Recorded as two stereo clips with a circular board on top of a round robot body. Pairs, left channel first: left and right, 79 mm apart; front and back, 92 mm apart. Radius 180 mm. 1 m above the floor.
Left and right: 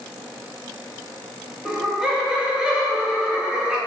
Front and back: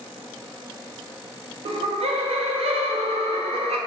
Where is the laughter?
170° right, 0.6 m.